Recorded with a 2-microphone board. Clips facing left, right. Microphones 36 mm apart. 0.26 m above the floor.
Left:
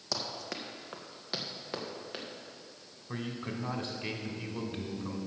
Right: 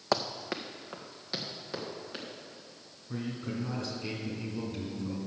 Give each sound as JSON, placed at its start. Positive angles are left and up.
{"t": 0.1, "sound": "running footsteps", "side_deg": -50, "distance_m": 0.8}
{"t": 3.1, "sound": "a man speaking", "side_deg": 50, "distance_m": 1.9}